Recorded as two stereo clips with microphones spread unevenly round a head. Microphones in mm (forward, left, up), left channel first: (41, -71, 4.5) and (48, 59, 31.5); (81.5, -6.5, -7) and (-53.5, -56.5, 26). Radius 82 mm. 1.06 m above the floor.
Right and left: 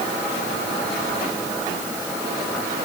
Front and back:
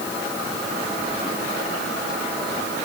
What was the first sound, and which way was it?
Only background noise.